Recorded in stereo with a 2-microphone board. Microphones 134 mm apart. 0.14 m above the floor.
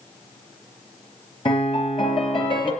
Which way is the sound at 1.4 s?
40° left (ahead or behind).